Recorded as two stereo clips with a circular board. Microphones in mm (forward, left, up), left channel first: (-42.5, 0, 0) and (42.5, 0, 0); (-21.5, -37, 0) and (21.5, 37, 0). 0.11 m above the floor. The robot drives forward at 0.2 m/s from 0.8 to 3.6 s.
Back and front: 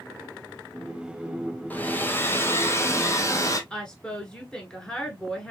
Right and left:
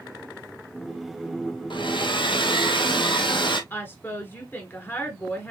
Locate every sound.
1.7 s a hair dryer: 110° right, 0.9 m; by 3.6 s 130° right, 1.1 m
3.7 s a woman speaking: 115° right, 1.2 m